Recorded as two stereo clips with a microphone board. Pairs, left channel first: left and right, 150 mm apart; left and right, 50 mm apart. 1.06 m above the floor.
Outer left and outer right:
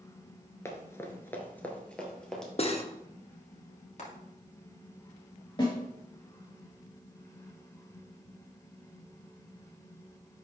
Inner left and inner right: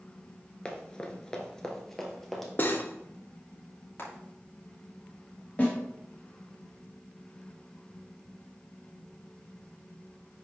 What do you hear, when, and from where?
0.7 s running footsteps: 20° left (ahead or behind), 1.1 m; by 2.5 s 5° left (ahead or behind), 1.6 m
2.6 s cutlery clinking: 40° left (ahead or behind), 0.8 m
4.0 s frying: 50° left (ahead or behind), 2 m
5.6 s a snare drum: 30° left (ahead or behind), 2 m